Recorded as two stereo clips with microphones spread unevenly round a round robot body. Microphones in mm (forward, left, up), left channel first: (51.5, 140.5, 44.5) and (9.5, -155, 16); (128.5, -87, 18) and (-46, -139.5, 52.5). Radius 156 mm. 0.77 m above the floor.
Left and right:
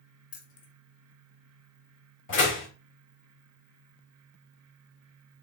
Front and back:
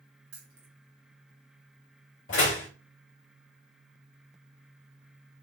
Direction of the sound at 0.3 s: 150° left.